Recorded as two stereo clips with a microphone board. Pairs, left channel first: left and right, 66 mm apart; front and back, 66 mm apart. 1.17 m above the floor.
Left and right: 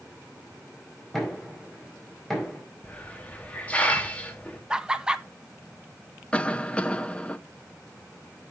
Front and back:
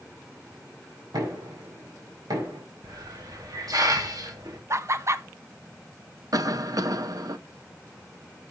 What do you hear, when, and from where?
1.1 s knocking: 175° left, 4.5 m
2.8 s a hiss: 160° left, 1.8 m
4.7 s laughter: 165° right, 0.8 m
6.3 s a cough: 160° left, 1.0 m